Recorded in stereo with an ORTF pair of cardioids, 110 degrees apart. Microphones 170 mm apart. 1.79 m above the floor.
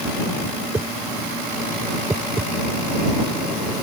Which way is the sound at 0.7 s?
10° right.